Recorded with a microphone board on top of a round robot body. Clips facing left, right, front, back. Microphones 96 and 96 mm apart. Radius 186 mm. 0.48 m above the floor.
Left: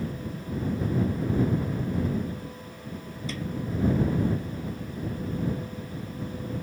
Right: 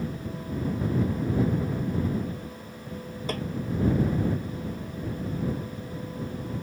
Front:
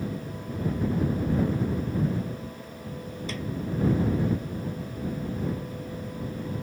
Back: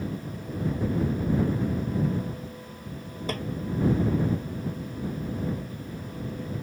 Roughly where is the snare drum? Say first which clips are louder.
Right 4 dB, back 5 dB; behind right.